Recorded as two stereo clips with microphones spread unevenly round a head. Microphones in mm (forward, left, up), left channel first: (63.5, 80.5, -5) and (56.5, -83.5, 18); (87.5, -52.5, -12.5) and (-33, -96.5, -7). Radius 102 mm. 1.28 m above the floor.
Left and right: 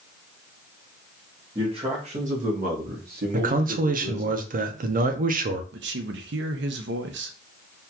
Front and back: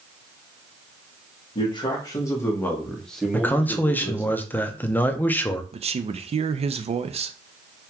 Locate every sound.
1.6 s a man speaking: 30° right, 1.4 m; by 4.3 s 85° right, 1.7 m
3.3 s a man speaking: 55° right, 0.7 m
5.7 s a man speaking: 115° right, 0.5 m